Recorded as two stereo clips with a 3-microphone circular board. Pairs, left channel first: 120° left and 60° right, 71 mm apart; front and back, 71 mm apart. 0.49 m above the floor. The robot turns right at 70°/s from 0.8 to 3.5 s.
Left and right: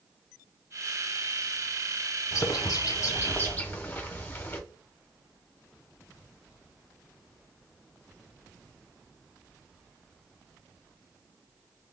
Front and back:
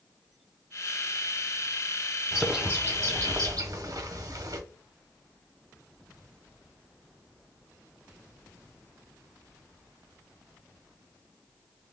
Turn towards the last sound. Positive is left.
turn(degrees=180)